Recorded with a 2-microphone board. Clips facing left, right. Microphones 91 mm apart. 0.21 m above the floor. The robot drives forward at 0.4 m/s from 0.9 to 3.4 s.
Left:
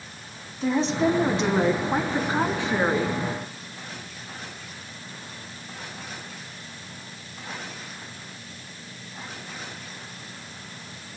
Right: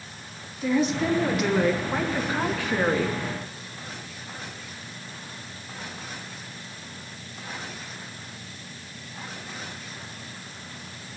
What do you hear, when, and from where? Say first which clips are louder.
0.6 s a woman speaking: left 1 dB; 30° left (ahead or behind), 1.4 m; by 3.2 s 20° left (ahead or behind), 2 m